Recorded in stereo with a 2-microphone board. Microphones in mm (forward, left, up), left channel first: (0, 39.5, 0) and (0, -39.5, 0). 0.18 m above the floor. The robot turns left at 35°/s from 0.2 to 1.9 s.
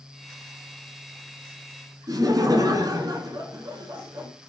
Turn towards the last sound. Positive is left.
turn(degrees=-50)  # may be behind; listen again after turning